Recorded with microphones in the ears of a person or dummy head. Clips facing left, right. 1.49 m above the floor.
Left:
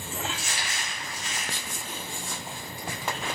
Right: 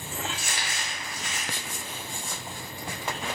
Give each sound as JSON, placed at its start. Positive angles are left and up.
{"t": 0.3, "sound": "crumpling", "side_deg": -45, "distance_m": 0.5}